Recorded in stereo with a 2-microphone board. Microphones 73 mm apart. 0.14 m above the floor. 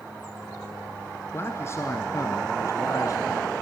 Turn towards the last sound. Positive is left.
turn(degrees=45)  # may be behind; listen again after turning